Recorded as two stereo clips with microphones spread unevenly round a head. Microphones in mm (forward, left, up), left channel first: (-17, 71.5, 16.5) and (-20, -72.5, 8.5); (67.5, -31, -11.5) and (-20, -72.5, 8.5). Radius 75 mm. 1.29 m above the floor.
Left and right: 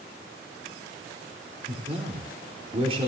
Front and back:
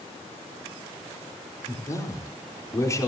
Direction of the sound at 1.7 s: 35° right.